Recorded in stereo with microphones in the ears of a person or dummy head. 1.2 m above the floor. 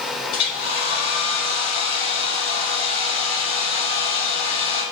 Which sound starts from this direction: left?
A hair dryer, at 0.3 s.